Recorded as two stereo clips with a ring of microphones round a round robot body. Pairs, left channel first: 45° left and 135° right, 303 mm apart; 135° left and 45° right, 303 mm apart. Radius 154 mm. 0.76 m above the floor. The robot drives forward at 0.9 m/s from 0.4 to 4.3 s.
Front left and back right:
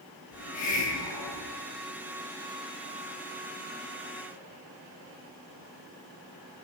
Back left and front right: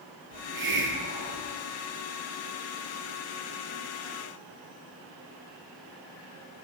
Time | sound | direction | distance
0.3 | a hiss | 10° left | 4 m